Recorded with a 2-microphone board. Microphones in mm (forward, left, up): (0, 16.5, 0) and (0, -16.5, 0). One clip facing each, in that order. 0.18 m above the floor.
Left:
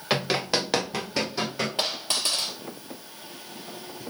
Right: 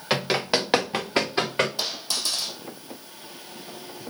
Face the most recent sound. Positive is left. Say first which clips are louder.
# left 2 dB
turn(degrees=45)  # may be behind; listen again after turning